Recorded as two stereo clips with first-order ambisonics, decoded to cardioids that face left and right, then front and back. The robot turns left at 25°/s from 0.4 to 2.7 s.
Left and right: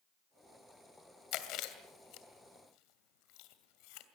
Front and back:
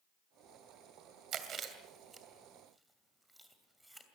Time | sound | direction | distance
1.3 | chewing | 130° left | 2.5 m